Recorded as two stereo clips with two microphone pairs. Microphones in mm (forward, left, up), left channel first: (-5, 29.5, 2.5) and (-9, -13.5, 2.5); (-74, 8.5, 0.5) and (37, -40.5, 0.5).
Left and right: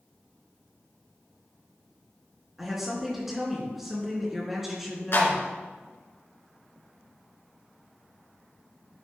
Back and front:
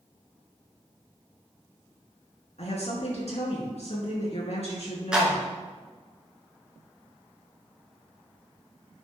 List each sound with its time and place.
2.6 s a woman speaking: straight behind, 4 m
5.1 s a clap: 60° left, 3 m